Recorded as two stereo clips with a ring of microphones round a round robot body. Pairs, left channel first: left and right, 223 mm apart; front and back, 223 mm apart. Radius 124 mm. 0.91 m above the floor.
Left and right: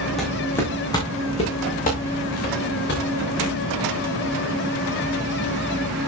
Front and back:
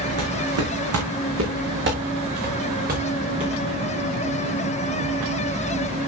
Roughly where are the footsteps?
Behind.